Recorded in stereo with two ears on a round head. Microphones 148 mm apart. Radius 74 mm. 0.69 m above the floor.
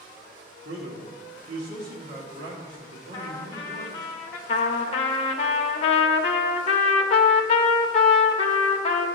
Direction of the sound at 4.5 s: 40° left (ahead or behind).